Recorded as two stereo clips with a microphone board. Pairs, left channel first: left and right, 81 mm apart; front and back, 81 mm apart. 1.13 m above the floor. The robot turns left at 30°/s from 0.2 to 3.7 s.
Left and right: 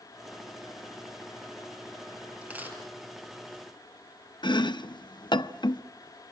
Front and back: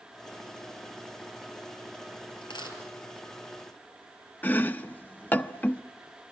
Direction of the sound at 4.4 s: 65° left.